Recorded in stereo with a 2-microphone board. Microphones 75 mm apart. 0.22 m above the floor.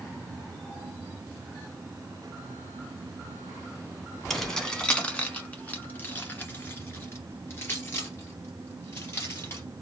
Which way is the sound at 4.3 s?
5° left (ahead or behind).